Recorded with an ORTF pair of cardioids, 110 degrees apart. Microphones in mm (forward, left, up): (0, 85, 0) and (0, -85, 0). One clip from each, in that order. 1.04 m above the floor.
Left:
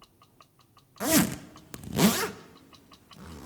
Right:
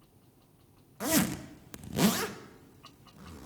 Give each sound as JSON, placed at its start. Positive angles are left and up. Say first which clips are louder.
{"t": 1.0, "sound": "a zipper", "louder": "left 4 dB", "azimuth_deg": 20, "distance_m": 1.3}